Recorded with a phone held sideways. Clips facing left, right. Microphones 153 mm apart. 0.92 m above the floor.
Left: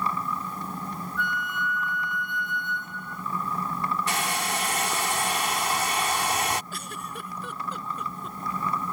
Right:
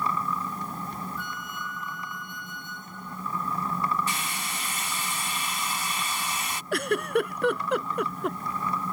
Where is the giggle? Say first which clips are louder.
Right 13 dB; 70° right (ahead or behind).